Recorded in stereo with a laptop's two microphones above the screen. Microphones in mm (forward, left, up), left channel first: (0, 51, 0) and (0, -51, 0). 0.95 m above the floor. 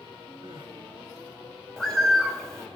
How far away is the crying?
About 0.9 m.